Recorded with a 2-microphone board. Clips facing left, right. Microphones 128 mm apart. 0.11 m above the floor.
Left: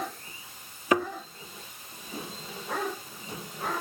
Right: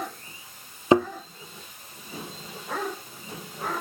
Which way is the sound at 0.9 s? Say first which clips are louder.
Right 6 dB; 25° right (ahead or behind).